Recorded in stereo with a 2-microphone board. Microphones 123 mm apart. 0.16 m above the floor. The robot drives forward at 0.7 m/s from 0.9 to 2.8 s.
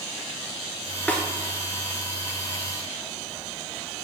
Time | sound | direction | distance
1.1 | a snare drum | 15° left (ahead or behind) | 1.0 m